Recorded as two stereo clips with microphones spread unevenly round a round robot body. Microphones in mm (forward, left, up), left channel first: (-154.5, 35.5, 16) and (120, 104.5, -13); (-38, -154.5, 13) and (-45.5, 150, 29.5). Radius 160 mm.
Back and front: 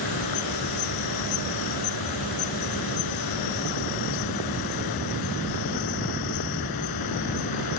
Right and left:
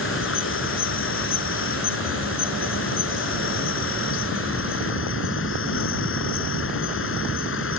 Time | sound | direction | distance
0.0 | an insect | 140° right | ?